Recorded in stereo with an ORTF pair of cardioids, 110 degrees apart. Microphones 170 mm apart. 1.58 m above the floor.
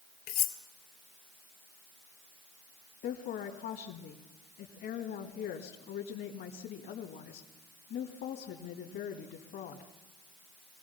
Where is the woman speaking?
70° left, 2.5 m.